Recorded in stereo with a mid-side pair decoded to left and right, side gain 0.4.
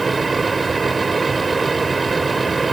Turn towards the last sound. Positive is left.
turn(degrees=-30)